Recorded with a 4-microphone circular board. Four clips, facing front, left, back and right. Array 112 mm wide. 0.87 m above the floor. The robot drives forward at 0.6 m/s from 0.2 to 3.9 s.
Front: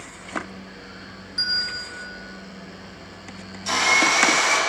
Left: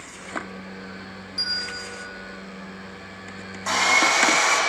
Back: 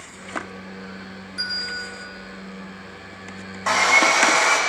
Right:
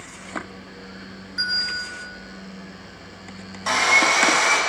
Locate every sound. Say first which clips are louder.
1.4 s a bell: right 6 dB, even; 80° right, 2.5 m; by 1.8 s 85° right, 2.5 m
3.7 s sawing: right 1 dB, back 3 dB; 170° right, 2.5 m